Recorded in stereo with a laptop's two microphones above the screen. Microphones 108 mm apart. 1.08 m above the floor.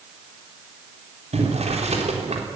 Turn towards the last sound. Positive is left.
turn(degrees=-75)  # may be behind; listen again after turning